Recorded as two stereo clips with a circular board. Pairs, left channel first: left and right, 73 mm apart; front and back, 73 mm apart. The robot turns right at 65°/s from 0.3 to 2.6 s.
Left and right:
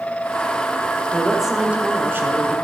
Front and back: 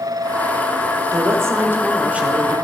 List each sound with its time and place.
1.1 s a woman speaking: 170° left, 1.2 m; by 2.5 s 100° right, 1.2 m